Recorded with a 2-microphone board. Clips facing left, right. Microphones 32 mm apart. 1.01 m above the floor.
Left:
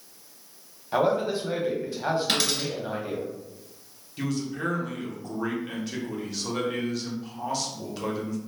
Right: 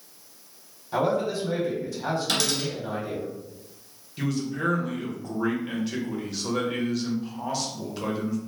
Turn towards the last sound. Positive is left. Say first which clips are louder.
# right 2 dB
turn(degrees=0)  # may be behind; listen again after turning